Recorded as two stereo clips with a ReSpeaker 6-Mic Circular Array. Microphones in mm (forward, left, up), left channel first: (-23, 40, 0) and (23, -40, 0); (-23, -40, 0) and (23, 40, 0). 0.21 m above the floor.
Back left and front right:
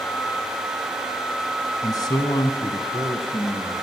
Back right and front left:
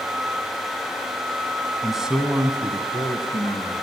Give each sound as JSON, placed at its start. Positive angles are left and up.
{"t": 1.8, "sound": "a man speaking", "azimuth_deg": 150, "distance_m": 1.4}